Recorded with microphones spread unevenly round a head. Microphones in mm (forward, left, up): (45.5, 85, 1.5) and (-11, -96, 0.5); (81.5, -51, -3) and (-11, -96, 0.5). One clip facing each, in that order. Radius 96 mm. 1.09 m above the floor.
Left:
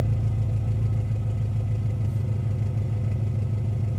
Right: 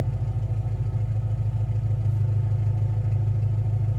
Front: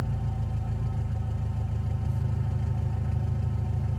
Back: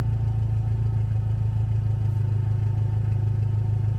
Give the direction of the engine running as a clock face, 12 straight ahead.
8 o'clock.